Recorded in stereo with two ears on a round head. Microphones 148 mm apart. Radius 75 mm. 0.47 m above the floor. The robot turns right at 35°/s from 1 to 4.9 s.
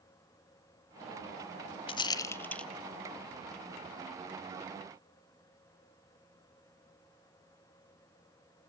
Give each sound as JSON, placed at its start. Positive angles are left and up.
{"t": 1.9, "sound": "a rattle", "side_deg": 30, "distance_m": 0.5}